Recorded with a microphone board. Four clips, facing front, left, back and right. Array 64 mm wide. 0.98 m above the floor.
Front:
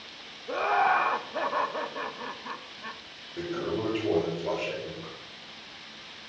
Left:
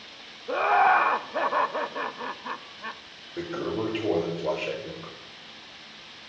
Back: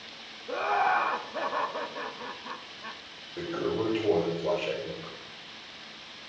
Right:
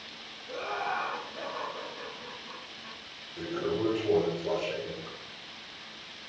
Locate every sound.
0.5 s laughter: 80° left, 0.6 m
3.4 s a toilet flushing: 95° left, 5 m